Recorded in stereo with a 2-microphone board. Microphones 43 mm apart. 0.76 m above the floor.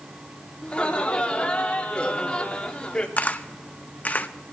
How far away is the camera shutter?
About 0.6 m.